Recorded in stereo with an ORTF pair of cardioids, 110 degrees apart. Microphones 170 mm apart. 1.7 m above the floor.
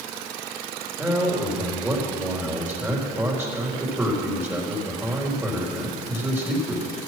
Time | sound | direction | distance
1.0 | a man speaking | 15° right | 3.5 m